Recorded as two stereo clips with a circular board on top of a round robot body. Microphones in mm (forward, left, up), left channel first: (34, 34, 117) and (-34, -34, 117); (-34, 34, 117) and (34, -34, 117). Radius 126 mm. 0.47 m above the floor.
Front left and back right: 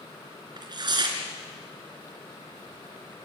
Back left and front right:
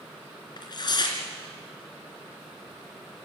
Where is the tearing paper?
Straight behind, 3 m.